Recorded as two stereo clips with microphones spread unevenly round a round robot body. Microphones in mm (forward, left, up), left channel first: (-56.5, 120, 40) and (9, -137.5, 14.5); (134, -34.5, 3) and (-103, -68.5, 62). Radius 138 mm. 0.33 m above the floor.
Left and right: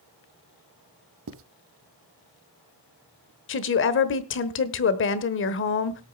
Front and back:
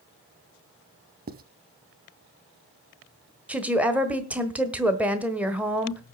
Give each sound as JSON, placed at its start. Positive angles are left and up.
{"t": 1.3, "sound": "writing", "azimuth_deg": -120, "distance_m": 0.8}
{"t": 3.5, "sound": "a woman speaking", "azimuth_deg": 90, "distance_m": 1.3}